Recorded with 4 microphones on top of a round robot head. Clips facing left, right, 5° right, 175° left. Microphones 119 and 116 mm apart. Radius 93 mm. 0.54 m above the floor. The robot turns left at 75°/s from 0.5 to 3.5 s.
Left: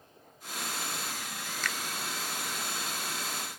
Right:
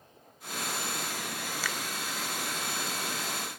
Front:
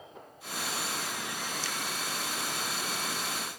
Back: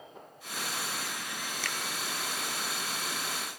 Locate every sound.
1.6 s a finger snap: 170° right, 1.4 m; by 1.8 s 175° left, 1.4 m